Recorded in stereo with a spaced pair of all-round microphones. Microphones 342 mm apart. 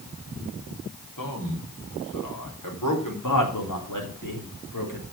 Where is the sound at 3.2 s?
65° left (ahead or behind), 3 m.